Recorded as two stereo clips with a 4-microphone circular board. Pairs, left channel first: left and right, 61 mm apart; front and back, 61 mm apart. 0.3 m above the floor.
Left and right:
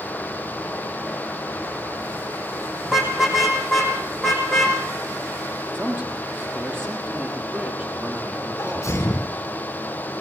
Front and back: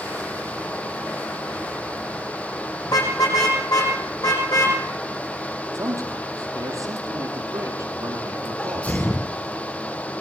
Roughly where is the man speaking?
Behind right.